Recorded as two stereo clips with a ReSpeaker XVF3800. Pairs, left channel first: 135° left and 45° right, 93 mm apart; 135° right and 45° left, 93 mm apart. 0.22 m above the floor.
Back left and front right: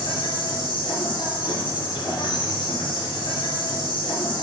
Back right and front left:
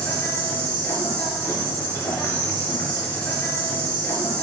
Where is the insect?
160° left, 3 m.